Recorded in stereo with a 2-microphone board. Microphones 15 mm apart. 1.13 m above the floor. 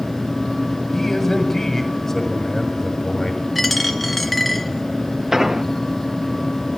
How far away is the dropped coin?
About 2.5 m.